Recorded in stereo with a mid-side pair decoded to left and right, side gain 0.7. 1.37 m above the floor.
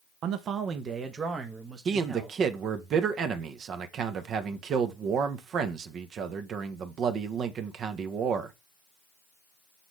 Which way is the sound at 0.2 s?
55° right.